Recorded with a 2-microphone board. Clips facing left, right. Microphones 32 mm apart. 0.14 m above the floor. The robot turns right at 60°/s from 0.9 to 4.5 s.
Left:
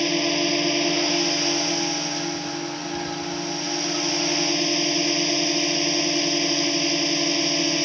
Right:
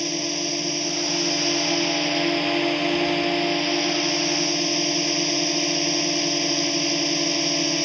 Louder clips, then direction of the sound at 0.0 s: Left 5 dB; 150° left.